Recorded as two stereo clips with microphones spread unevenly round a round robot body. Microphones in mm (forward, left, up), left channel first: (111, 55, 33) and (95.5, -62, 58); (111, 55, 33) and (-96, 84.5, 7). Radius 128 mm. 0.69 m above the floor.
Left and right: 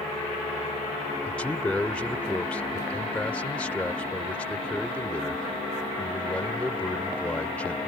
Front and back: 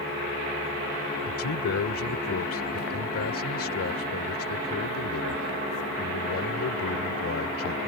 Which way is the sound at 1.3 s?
5° left.